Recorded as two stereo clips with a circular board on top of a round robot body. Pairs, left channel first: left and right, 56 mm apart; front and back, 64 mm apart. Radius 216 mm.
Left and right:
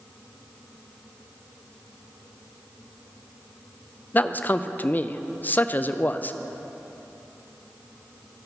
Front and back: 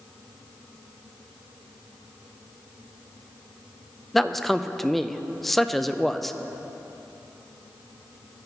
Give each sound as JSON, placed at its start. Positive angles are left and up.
{"t": 4.1, "sound": "a man speaking", "azimuth_deg": 85, "distance_m": 0.5}